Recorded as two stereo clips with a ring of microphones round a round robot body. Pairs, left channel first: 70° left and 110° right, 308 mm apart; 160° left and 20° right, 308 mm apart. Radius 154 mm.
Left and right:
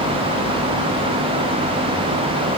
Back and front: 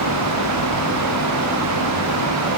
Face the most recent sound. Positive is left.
No sound to turn to.